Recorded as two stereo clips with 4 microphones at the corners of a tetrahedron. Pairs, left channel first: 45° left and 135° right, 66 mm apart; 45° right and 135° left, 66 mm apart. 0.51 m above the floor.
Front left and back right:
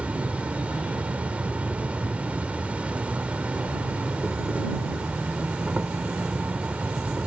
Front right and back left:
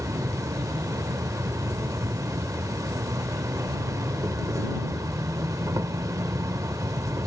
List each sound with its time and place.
0.0 s an insect: 160° left